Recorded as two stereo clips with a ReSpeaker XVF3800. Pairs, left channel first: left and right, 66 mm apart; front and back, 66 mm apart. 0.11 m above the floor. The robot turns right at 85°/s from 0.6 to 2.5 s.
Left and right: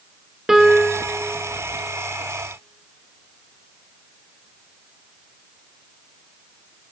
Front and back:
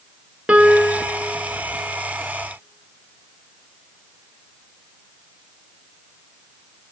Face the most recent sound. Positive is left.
turn(degrees=10)